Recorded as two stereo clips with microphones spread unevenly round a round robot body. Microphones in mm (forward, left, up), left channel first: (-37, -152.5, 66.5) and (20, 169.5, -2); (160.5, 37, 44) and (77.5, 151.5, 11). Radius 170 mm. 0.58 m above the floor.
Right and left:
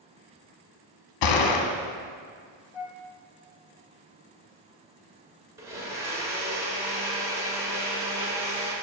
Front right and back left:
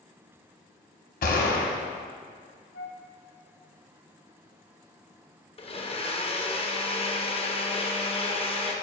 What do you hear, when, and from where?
1.2 s a gunshot: 80° right, 0.8 m
2.7 s a flute: 85° right, 0.6 m
5.6 s a blender: straight ahead, 1.1 m